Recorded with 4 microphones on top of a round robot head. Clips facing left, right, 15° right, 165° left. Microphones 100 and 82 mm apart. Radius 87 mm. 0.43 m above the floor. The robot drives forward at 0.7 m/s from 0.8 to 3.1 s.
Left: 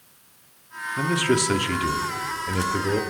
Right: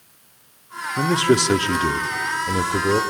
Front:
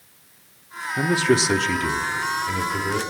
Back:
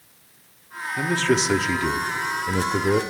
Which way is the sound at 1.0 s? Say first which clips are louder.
Right 4 dB, front 2 dB; 60° right.